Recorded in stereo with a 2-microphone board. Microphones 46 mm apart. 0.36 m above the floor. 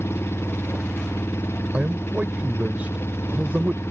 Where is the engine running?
70° left (ahead or behind).